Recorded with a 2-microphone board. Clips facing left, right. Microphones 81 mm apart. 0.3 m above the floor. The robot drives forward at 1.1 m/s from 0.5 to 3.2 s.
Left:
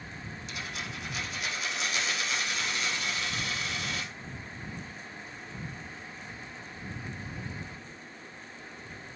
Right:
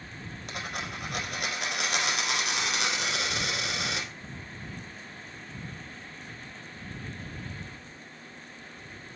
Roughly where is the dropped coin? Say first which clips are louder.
Right 4 dB; right.